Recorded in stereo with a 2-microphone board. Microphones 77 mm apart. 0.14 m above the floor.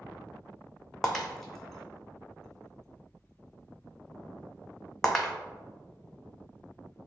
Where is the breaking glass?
5° left (ahead or behind), 0.5 m.